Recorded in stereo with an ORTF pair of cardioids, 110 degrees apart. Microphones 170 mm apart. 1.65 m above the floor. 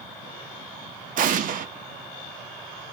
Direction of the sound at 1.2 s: 55° right.